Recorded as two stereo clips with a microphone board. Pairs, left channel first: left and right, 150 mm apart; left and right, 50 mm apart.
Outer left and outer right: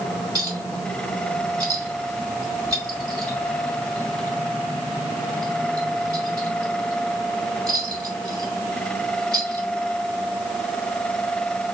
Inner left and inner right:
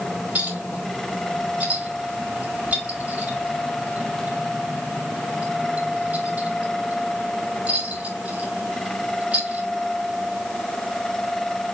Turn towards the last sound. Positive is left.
turn(degrees=-30)  # may be behind; listen again after turning